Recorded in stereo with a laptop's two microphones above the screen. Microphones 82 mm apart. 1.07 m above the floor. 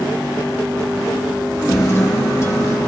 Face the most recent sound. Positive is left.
turn(degrees=30)  # may be behind; listen again after turning